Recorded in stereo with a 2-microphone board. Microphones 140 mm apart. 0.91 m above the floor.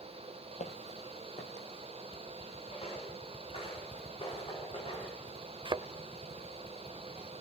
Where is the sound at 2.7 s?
45° left (ahead or behind), 9 m; by 5.2 s 35° left (ahead or behind), 6 m.